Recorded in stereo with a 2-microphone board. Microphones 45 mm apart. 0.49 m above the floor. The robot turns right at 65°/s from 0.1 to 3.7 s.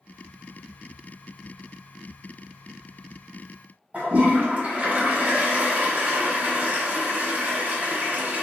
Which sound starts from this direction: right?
A toilet flushing, at 3.9 s.